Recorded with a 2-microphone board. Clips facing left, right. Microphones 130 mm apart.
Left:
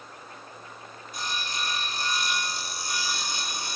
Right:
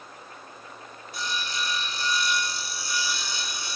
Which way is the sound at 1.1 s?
50° left (ahead or behind).